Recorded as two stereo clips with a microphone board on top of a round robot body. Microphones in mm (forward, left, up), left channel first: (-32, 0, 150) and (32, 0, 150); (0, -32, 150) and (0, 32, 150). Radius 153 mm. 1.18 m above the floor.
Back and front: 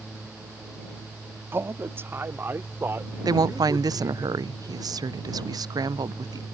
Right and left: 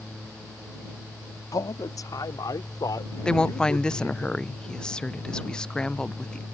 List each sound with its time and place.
1.5 s a man speaking: 55° right; by 4.2 s 60° right
3.2 s a woman speaking: 10° right